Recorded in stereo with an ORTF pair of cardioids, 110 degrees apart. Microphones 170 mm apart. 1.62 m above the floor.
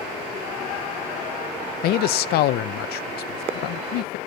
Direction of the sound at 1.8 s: 65° left.